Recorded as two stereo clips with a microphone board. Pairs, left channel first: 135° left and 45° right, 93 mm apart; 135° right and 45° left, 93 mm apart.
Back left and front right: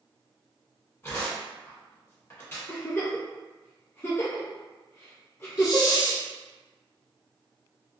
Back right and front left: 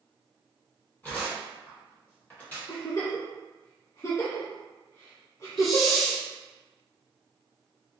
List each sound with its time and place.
1.0 s tearing paper: 175° left, 1.4 m
2.7 s a giggle: 170° right, 1.5 m
5.6 s a hiss: 135° left, 0.8 m